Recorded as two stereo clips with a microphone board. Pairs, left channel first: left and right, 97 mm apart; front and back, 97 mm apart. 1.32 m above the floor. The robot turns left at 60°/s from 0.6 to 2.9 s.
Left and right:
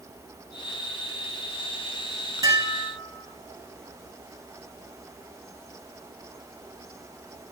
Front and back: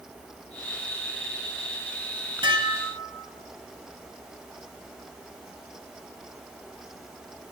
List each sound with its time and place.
2.4 s dishes clattering: 145° right, 2 m; by 3.3 s 170° right, 2 m